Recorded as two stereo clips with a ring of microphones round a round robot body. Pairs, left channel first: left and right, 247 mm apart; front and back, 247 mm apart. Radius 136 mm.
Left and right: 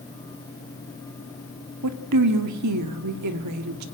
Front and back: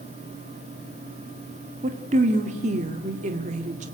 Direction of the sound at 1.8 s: 115° right.